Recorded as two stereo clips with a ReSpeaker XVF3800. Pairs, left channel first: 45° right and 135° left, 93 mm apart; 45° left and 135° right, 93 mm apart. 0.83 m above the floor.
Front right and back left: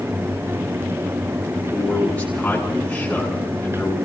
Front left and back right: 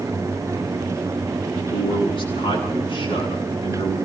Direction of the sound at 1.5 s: 30° left.